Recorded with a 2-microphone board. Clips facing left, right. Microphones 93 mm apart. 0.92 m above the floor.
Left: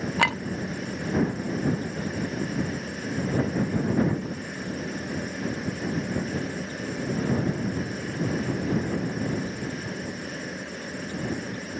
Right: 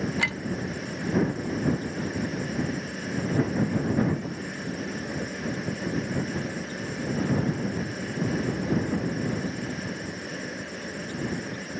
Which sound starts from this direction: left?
A clink, at 0.2 s.